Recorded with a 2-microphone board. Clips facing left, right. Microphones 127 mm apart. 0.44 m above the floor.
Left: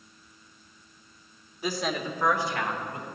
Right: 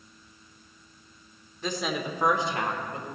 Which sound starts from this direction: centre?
A woman speaking, at 1.6 s.